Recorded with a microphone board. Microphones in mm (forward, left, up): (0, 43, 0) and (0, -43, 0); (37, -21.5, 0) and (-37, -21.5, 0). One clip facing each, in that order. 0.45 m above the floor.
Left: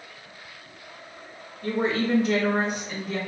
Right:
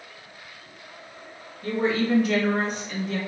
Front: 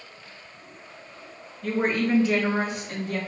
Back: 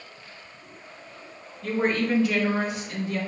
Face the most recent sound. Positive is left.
turn(degrees=0)